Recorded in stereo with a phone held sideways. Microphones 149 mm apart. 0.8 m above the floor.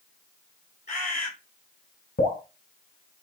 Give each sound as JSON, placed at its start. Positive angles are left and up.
{"t": 0.9, "sound": "a bird", "side_deg": 50, "distance_m": 3.5}
{"t": 2.2, "sound": "dripping", "side_deg": 85, "distance_m": 1.7}